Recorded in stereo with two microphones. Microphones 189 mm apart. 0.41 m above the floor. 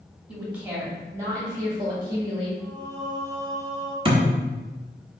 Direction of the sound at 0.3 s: 10° right (ahead or behind).